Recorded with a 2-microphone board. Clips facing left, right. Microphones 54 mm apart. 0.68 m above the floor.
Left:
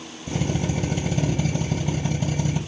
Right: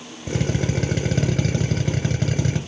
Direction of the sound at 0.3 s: 65° right (ahead or behind).